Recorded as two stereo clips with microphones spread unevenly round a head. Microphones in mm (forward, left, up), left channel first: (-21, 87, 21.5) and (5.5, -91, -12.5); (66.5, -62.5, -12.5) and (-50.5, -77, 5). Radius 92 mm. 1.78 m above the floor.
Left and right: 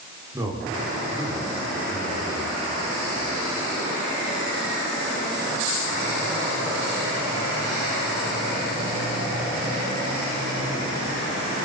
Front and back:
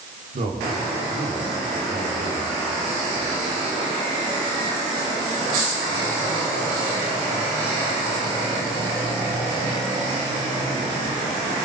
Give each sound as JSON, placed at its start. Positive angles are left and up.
{"t": 0.3, "sound": "a man speaking", "azimuth_deg": -160, "distance_m": 5.0}